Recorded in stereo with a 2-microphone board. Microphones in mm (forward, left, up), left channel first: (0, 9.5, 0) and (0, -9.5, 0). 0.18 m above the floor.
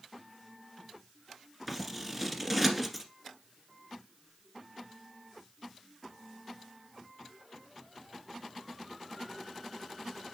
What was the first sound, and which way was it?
Scissors, centre (ahead or behind).